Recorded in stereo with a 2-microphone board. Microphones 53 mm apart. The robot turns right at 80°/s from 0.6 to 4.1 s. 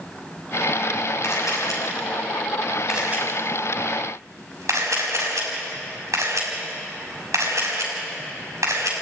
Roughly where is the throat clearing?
No throat clearing in this recording.